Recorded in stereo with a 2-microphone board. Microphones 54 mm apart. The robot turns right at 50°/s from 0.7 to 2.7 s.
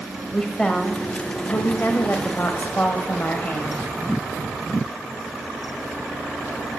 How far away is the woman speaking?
About 1.0 m.